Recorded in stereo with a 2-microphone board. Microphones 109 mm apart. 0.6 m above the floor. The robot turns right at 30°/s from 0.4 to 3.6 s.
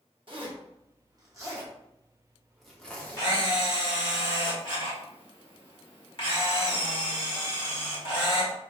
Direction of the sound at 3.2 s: 35° left (ahead or behind).